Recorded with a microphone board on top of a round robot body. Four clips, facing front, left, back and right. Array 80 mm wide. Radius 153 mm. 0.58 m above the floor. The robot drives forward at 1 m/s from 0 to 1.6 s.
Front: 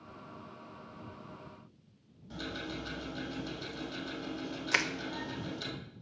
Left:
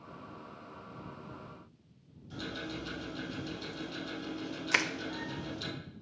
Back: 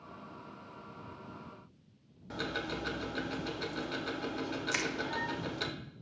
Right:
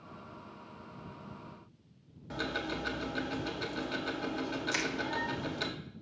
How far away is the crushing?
About 1.1 m.